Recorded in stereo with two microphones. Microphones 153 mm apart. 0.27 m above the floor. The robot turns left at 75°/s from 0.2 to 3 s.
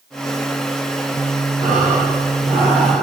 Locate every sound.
1.6 s breathing: 80° right, 6 m; by 3.0 s 175° left, 6 m